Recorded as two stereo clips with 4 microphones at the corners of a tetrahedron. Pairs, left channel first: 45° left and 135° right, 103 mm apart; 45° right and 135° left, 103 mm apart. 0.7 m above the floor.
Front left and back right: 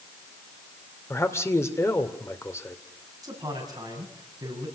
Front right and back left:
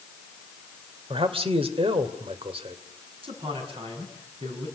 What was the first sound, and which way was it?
A man speaking, 110° left.